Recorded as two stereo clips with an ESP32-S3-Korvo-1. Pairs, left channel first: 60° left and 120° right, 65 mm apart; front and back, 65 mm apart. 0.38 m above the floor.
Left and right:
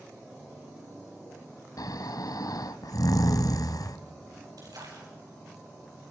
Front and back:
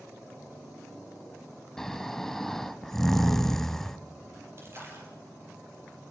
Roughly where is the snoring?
Left.